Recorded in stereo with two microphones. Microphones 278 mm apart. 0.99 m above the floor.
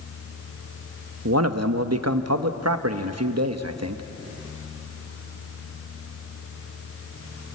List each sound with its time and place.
1.2 s a man speaking: 65° right (ahead or behind), 1.1 m